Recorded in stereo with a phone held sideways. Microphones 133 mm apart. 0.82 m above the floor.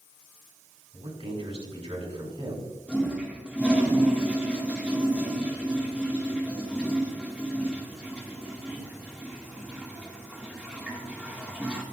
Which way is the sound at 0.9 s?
50° right (ahead or behind).